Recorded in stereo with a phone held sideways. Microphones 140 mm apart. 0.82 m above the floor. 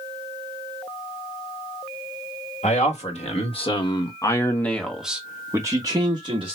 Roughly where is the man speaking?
Left.